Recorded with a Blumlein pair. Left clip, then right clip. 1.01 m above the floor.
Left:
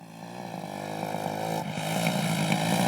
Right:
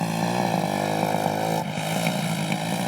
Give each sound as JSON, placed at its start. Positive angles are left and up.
{"t": 0.0, "sound": "a motorcycle", "azimuth_deg": -40}